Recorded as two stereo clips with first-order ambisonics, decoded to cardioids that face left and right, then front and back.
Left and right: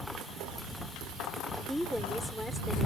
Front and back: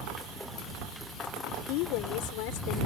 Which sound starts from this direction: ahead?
A woman speaking, at 1.7 s.